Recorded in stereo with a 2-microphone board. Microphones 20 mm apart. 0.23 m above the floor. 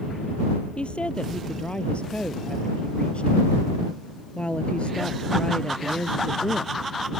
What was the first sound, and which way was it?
A woman speaking, 75° left (ahead or behind).